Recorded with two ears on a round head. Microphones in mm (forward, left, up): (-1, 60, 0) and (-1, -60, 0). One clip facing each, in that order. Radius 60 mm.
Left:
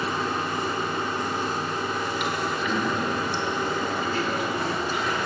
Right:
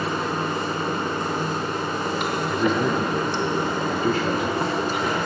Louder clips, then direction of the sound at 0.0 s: Right 2 dB; 35° right (ahead or behind).